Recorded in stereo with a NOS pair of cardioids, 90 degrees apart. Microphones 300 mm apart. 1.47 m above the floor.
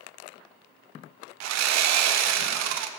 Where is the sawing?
65° right, 0.6 m.